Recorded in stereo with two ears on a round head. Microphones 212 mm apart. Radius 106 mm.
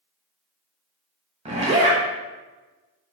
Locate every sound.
1.4 s a zipper: 25° right (ahead or behind), 0.8 m